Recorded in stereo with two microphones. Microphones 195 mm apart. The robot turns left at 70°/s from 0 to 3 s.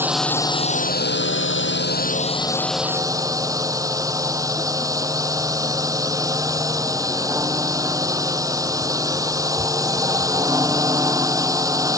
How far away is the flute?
No flute in this recording.